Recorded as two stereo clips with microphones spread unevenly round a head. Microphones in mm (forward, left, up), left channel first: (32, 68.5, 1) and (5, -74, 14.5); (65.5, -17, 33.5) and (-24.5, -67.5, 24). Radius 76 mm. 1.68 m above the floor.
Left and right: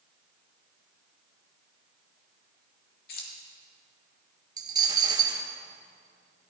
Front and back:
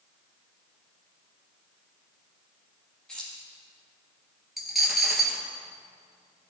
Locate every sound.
3.1 s keys jangling: 115° left, 2.5 m
4.6 s a dropped coin: 60° right, 2 m